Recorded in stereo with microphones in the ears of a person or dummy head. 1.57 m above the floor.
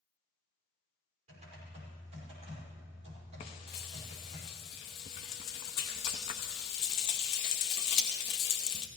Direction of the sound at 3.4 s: 35° left (ahead or behind).